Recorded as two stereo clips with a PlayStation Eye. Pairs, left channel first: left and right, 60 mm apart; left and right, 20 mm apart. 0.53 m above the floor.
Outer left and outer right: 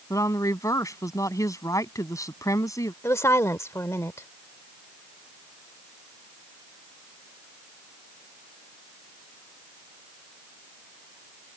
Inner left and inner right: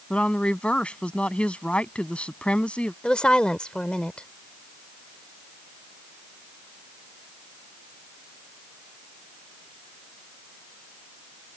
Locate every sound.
0.1 s a woman speaking: 75° left (ahead or behind)
3.0 s a woman speaking: 60° left (ahead or behind)